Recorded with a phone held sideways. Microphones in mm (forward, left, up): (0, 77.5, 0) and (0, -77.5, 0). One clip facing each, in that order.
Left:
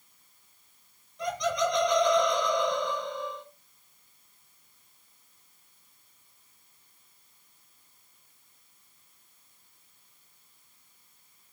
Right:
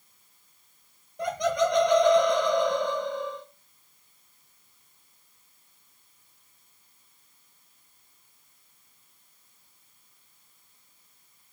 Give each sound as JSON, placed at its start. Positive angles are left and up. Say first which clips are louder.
{"t": 1.2, "sound": "laughter", "louder": "right 3 dB", "side_deg": -55, "distance_m": 0.8}